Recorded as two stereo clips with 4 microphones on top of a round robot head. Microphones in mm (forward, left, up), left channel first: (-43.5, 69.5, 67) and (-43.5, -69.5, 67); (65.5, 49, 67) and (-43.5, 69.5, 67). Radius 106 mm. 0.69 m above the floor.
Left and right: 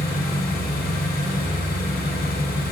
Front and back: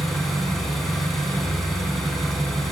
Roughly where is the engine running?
Left.